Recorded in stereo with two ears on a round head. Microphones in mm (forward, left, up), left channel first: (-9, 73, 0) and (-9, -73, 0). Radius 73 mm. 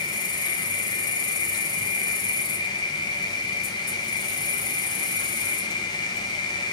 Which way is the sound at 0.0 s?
25° left (ahead or behind).